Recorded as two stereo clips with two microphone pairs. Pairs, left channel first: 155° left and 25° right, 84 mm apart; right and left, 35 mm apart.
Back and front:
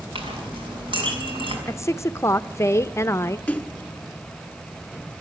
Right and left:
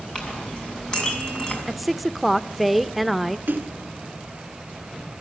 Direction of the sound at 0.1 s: 25° right.